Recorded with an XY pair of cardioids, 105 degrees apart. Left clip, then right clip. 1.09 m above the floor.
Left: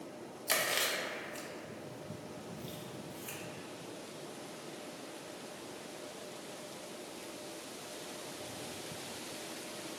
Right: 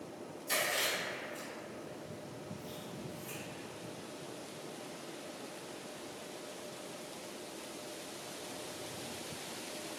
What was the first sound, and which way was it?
Chewing, 65° left.